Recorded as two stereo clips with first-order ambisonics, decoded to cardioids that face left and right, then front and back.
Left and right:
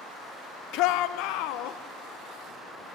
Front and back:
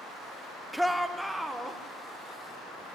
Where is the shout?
90° left, 0.6 m.